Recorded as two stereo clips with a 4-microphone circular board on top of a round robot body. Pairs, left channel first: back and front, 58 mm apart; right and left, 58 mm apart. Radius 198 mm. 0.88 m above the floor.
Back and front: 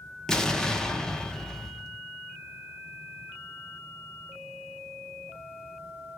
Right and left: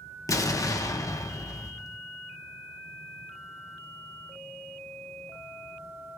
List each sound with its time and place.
0.3 s an explosion: 100° right, 0.8 m